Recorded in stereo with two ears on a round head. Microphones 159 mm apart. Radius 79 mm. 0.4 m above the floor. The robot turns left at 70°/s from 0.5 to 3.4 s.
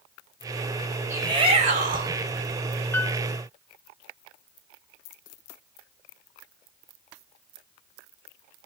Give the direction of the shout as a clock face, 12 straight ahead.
1 o'clock.